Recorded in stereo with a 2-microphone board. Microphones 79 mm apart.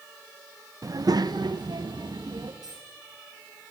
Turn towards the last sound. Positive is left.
turn(degrees=-60)  # may be behind; listen again after turning